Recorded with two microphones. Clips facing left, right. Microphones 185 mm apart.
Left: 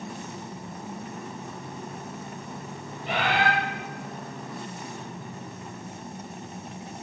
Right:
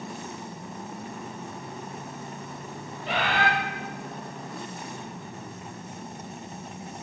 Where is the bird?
55° left (ahead or behind), 8 m.